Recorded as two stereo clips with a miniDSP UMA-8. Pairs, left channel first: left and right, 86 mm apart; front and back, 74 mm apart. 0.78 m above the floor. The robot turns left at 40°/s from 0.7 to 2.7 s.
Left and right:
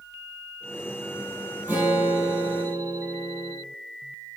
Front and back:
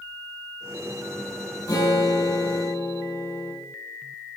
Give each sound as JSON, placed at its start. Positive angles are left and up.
{"t": 1.7, "sound": "a guitar", "azimuth_deg": -20, "distance_m": 4.0}